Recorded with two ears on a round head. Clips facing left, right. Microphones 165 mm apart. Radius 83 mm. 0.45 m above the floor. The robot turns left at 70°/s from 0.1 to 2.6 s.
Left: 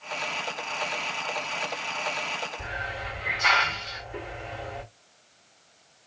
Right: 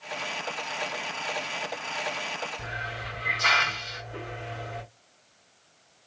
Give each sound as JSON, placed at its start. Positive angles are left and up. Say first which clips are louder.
{"t": 2.6, "sound": "a hiss", "louder": "left 2 dB", "side_deg": -40, "distance_m": 2.5}